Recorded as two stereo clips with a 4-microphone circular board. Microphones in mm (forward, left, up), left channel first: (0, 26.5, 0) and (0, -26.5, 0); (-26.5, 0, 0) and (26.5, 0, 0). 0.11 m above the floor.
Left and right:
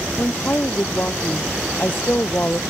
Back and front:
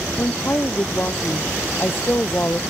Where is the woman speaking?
135° left.